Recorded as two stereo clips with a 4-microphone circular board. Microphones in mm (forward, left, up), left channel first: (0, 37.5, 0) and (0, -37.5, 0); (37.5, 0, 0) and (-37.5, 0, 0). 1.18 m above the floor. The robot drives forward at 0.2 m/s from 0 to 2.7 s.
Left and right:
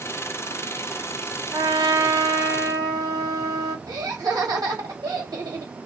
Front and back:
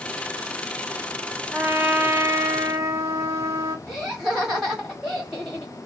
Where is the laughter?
95° right, 1.7 m.